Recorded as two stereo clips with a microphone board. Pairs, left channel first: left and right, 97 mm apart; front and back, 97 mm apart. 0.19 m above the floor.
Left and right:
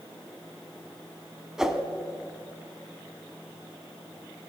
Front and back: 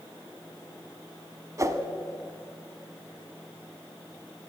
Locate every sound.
1.6 s a whoosh: 170° right, 0.7 m